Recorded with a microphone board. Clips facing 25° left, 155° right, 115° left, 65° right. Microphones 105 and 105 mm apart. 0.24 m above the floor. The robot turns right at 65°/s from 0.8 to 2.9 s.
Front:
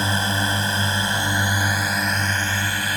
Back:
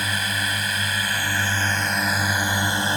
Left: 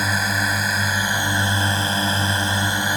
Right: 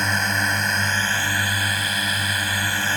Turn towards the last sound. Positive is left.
turn(degrees=170)